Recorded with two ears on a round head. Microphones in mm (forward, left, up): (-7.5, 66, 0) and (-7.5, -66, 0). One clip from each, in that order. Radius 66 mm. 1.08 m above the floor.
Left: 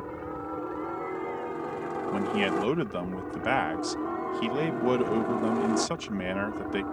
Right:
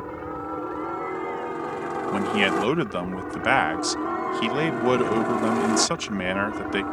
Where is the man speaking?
30° right (ahead or behind).